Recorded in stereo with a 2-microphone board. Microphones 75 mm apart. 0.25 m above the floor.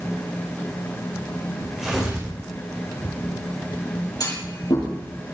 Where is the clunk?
60° left (ahead or behind), 7 m.